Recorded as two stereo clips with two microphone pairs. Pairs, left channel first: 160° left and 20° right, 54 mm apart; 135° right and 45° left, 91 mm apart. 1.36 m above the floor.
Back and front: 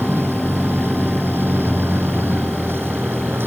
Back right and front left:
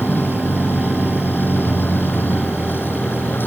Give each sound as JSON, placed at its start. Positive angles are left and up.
{"t": 0.0, "sound": "a vehicle", "azimuth_deg": -65}